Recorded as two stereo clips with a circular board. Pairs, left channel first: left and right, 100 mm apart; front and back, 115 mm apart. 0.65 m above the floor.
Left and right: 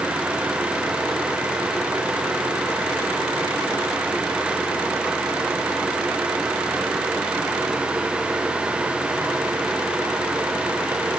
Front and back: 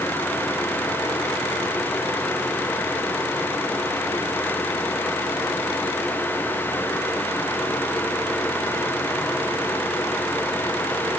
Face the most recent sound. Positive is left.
No sound to turn to.